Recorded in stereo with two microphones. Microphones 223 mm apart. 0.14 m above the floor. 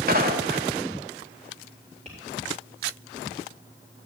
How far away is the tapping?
About 7 m.